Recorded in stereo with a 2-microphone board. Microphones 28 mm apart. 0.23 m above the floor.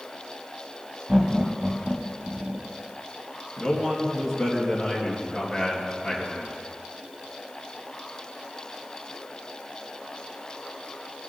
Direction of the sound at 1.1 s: 25° right (ahead or behind).